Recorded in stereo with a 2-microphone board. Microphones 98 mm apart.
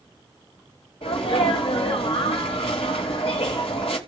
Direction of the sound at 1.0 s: 80° left.